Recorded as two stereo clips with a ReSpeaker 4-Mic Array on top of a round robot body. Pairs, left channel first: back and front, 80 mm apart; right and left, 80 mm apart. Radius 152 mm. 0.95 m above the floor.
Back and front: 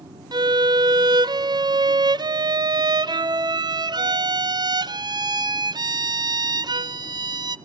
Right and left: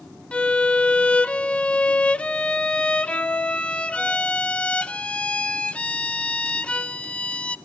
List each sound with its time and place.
0.3 s a violin: 15° right, 0.8 m